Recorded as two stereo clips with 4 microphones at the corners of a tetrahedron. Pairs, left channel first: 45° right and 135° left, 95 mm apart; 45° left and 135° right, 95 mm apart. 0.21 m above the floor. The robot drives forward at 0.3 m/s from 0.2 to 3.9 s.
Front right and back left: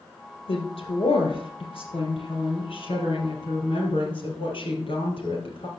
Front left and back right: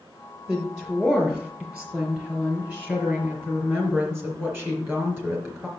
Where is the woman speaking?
55° right, 4 m; by 5.7 s 70° right, 3.5 m.